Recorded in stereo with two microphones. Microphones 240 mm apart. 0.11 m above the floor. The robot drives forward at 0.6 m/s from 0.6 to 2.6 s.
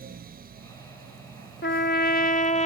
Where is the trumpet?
50° left (ahead or behind); by 2.7 s 30° left (ahead or behind).